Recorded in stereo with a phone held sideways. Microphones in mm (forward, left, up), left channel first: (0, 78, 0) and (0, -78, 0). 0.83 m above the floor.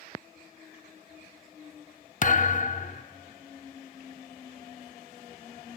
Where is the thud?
50° left (ahead or behind), 0.6 m.